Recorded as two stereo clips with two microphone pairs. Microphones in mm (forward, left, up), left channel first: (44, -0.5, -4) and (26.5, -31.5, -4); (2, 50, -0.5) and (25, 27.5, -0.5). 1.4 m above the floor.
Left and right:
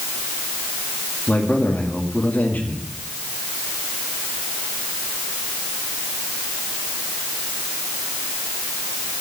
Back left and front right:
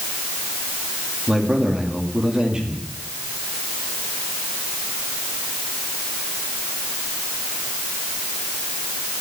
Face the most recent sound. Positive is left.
turn(degrees=20)